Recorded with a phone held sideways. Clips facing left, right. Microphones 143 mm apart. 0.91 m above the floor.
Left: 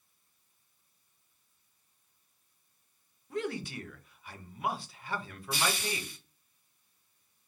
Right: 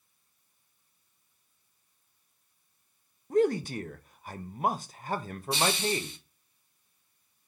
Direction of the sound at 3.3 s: 45° right (ahead or behind).